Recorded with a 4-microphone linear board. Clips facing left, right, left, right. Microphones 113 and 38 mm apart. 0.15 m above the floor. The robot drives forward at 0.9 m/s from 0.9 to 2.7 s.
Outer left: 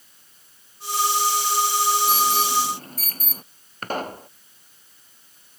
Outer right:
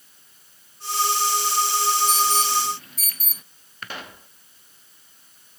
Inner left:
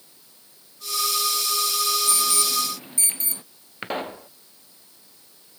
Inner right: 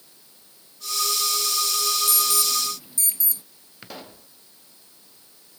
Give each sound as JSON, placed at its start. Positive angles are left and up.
{"t": 2.1, "sound": "an alarm", "side_deg": 45}
{"t": 3.8, "sound": "a pop", "side_deg": 45}